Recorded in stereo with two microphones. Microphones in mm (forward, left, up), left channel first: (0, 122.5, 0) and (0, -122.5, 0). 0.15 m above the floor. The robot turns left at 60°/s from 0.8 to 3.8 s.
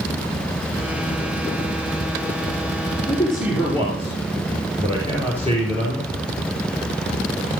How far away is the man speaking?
About 3 m.